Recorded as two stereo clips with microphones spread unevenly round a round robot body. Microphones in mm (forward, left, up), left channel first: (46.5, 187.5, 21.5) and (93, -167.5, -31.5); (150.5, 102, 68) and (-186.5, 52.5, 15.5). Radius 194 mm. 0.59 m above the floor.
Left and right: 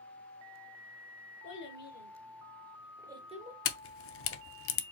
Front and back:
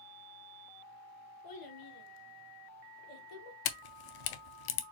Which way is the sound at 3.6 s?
40° left.